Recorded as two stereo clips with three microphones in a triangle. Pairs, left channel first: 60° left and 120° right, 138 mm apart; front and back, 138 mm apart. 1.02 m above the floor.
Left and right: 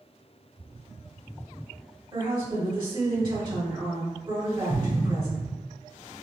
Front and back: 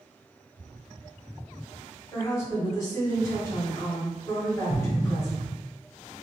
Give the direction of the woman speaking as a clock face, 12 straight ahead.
2 o'clock.